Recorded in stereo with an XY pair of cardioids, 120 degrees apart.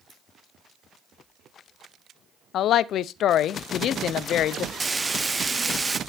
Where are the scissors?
35° right, 8 m.